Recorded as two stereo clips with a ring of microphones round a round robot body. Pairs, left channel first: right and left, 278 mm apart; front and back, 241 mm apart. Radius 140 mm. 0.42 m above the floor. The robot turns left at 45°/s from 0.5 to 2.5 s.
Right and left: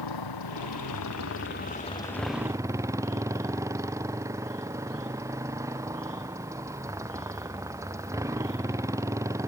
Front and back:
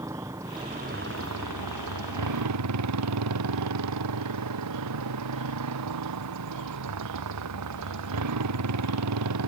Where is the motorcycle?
100° right; by 9.5 s 170° left.